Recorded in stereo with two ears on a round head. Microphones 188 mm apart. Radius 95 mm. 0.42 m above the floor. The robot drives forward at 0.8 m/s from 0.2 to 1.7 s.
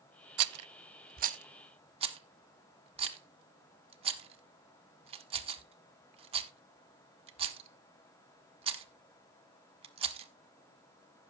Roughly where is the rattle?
Right.